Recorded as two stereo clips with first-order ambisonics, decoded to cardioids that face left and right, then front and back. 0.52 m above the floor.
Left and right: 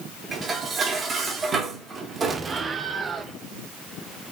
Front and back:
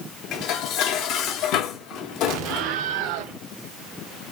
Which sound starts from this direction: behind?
An explosion, at 2.3 s.